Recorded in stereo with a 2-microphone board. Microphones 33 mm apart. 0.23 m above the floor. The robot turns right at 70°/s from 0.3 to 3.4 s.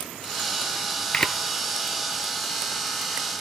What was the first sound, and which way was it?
A camera shutter, 25° left (ahead or behind).